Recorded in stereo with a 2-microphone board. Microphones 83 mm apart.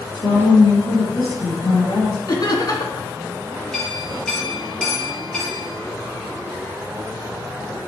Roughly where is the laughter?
Left.